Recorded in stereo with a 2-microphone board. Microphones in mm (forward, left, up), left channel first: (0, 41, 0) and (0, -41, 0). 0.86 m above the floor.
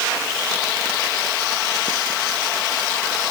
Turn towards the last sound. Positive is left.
No sound to turn to.